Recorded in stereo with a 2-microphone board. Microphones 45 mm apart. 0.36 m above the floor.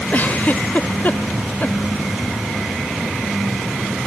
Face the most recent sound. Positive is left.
turn(degrees=40)  # may be behind; listen again after turning